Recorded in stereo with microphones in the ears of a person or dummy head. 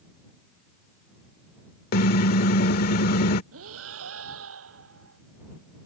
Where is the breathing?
80° right.